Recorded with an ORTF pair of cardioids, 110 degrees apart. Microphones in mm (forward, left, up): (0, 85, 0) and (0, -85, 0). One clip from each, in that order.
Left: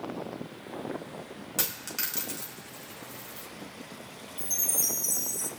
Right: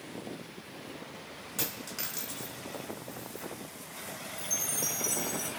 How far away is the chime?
About 1.5 m.